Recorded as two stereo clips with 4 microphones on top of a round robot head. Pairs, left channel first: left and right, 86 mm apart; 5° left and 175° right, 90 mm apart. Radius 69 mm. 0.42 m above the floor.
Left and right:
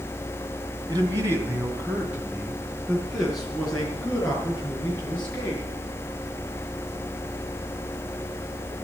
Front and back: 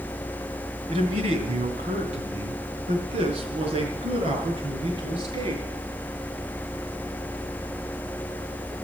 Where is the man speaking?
145° right, 2.5 m; by 5.6 s 165° left, 6.5 m.